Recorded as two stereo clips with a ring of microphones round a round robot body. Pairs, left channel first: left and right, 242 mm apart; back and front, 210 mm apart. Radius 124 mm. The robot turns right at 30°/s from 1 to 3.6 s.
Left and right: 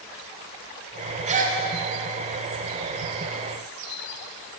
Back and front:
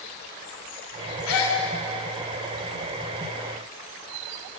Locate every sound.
1.3 s a gasp: 155° right, 1.6 m; by 1.6 s 145° right, 1.6 m